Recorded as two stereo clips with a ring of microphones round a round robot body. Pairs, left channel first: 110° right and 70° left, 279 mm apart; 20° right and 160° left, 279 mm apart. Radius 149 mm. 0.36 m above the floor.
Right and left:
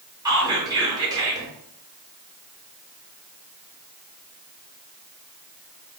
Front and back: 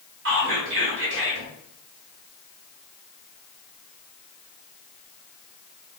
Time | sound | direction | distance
0.2 | whispering | 140° left | 1.1 m